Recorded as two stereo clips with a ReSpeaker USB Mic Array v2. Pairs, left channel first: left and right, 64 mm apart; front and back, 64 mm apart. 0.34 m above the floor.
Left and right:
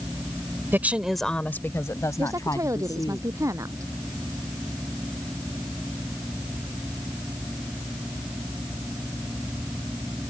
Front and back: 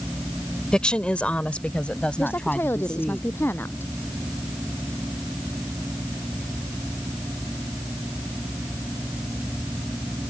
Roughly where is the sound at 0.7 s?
Right.